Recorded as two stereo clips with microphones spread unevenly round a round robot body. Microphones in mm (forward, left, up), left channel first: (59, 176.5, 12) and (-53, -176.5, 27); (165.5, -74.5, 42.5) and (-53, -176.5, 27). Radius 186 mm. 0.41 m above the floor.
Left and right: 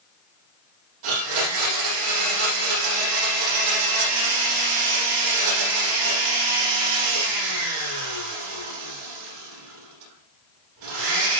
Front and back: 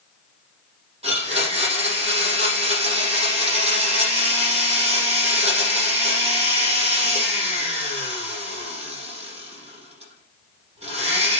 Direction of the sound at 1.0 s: 90° right.